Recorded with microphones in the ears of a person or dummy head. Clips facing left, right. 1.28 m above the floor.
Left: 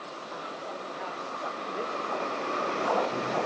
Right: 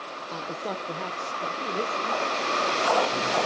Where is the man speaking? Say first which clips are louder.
Right 7 dB; 40° right (ahead or behind), 0.7 m; by 3.4 s 25° right (ahead or behind), 4.5 m.